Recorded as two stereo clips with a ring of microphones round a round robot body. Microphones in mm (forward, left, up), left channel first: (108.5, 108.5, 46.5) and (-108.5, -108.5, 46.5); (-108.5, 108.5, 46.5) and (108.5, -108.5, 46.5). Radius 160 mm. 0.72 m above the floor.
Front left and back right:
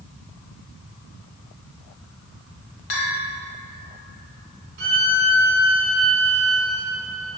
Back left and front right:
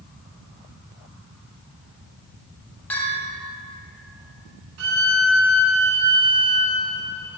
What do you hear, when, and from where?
2.9 s a bell: 50° left, 1.7 m
4.8 s a violin: 70° right, 1.8 m